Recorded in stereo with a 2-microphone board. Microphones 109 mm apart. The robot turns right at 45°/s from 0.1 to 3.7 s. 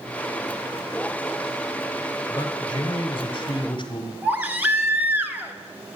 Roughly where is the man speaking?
Ahead left.